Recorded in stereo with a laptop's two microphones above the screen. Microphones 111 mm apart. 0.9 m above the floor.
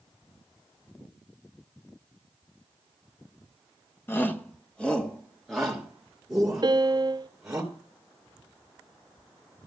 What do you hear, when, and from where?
4.1 s a shout: 20° left (ahead or behind), 1.1 m; by 7.6 s 5° right (ahead or behind), 4 m
6.6 s a piano: 40° right (ahead or behind), 0.5 m